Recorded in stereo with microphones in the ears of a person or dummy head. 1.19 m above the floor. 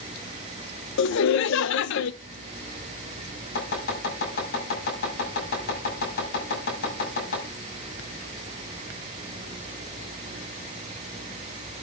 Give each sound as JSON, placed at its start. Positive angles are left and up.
{"t": 1.0, "sound": "laughter", "side_deg": 70, "distance_m": 0.7}
{"t": 3.5, "sound": "chopping", "side_deg": 55, "distance_m": 7.5}